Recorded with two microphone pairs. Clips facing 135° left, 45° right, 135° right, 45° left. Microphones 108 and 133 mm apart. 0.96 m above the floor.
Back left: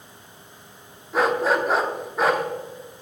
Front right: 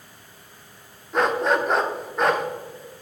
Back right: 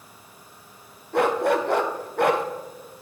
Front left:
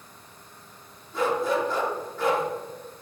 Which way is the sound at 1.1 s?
140° right.